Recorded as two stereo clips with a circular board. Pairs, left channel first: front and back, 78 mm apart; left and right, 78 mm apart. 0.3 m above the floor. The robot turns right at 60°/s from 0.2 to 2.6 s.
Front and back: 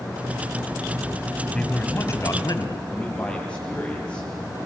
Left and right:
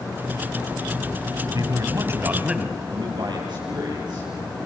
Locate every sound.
1.5 s a man speaking: 75° right, 2 m; by 2.8 s 10° right, 2 m
2.9 s a man speaking: 75° right, 9 m